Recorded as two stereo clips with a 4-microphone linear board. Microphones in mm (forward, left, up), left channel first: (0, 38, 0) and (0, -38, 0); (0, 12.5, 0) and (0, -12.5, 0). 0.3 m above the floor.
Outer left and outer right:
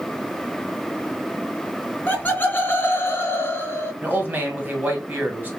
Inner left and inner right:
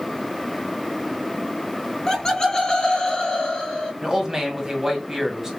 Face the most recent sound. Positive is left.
turn(degrees=-25)  # may be behind; listen again after turning